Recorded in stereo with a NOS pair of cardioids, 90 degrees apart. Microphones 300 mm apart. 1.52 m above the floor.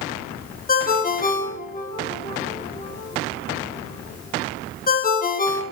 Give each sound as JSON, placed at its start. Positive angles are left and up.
{"t": 0.7, "sound": "a ringtone", "azimuth_deg": 30, "distance_m": 1.2}